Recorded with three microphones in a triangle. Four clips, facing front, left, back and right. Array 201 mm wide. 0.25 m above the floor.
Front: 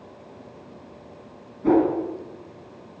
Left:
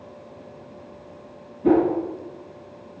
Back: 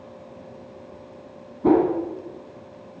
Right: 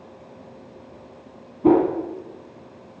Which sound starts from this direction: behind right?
A whoosh, at 1.6 s.